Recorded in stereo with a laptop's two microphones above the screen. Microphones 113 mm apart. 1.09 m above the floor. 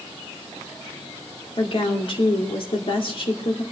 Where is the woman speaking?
55° left (ahead or behind), 2.5 m.